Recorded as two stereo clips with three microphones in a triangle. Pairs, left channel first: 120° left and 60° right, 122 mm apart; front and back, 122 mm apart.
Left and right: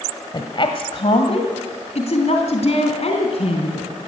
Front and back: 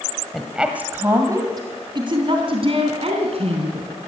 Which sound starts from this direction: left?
A woman speaking, at 0.3 s.